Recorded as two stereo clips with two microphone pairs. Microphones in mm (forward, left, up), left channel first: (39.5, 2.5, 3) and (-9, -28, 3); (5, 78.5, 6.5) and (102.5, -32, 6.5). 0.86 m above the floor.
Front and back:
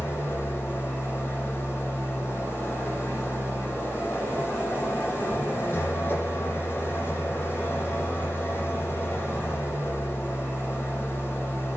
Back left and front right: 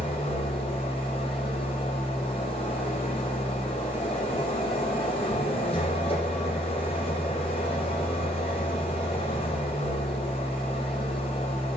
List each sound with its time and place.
0.0 s an engine running: 80° left, 8 m